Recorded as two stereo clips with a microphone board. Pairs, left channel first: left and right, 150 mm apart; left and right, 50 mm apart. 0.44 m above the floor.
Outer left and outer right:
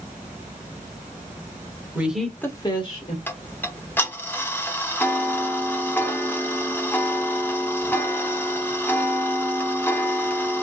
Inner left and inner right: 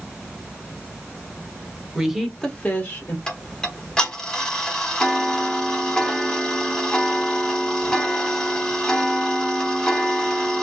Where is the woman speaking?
10° right (ahead or behind), 1.2 m; by 3.2 s 40° left (ahead or behind), 1.4 m.